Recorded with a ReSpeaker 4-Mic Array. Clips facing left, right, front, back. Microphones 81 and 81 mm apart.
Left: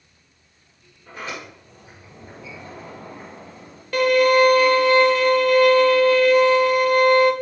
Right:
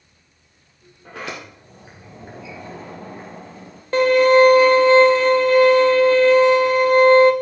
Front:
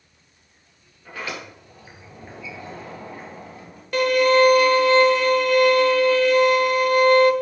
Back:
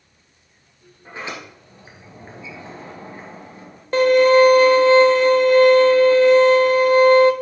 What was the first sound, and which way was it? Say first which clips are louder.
A sliding door: right 1 dB, even; 115° right.